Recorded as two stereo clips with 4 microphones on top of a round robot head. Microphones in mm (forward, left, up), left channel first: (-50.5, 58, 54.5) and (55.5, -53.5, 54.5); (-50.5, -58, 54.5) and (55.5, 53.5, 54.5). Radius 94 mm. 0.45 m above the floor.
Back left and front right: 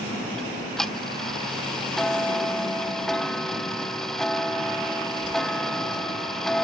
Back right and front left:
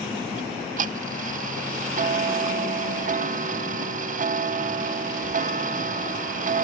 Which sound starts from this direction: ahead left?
Ticking, at 0.4 s.